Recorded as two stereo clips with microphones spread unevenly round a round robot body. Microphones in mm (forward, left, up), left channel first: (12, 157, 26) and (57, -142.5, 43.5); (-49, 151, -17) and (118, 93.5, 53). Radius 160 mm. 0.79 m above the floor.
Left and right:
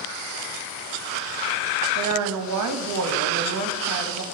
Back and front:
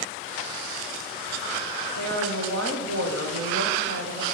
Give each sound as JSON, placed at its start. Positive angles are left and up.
{"t": 1.9, "sound": "a woman speaking", "azimuth_deg": -50, "distance_m": 0.7}